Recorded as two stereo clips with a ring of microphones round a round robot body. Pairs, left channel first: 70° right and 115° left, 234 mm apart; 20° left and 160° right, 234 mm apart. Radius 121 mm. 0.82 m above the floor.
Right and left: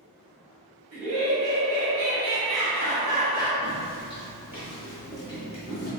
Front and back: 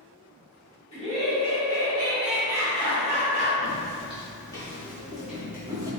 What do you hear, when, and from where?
0.9 s laughter: 65° left, 1.2 m; by 3.5 s 125° right, 1.1 m
3.6 s footsteps: 70° left, 1.0 m; by 5.9 s 90° right, 1.0 m